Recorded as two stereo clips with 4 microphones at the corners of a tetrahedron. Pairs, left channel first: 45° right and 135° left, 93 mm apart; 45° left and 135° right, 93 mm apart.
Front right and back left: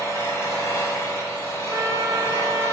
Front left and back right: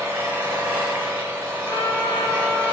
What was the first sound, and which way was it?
An engine running, 80° right.